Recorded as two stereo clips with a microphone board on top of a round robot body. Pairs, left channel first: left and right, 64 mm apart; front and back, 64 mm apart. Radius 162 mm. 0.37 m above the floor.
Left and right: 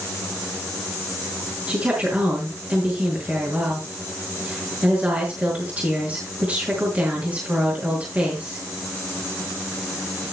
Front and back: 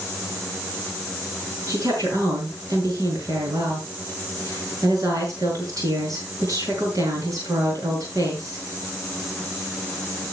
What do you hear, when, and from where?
1.7 s a woman speaking: 155° right, 6 m